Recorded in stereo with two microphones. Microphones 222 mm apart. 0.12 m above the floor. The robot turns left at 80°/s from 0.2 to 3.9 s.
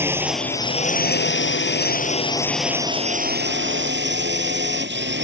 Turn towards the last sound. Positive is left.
turn(degrees=-105)